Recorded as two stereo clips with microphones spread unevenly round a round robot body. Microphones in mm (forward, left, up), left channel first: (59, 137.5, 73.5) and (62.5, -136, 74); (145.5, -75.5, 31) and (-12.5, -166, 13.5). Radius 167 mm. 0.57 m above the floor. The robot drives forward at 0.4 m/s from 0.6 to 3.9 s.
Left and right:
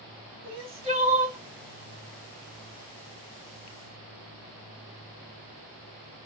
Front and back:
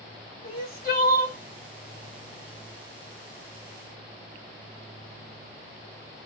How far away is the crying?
About 1.5 m.